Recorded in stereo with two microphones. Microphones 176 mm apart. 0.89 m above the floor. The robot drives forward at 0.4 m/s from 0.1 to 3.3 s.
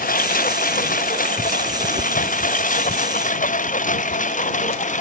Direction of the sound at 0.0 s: 50° left (ahead or behind).